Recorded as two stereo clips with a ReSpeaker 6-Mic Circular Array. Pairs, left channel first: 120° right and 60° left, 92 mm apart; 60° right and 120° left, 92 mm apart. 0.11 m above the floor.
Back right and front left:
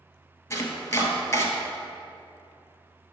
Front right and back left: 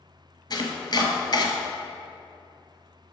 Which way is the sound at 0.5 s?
70° right.